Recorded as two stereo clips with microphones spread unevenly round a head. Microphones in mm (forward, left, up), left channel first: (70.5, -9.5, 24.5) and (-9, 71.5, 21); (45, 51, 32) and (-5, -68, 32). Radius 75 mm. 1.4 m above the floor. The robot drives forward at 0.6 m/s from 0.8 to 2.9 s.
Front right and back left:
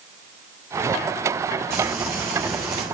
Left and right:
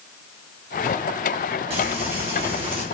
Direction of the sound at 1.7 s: 155° right.